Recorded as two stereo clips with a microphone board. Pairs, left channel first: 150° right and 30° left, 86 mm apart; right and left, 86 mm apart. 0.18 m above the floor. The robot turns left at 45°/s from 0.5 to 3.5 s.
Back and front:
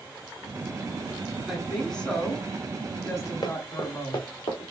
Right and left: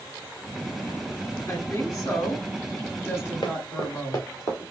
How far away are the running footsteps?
About 1.6 m.